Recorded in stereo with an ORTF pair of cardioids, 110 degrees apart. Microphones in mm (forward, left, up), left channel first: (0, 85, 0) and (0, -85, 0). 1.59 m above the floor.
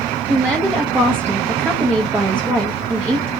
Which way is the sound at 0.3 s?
10° right.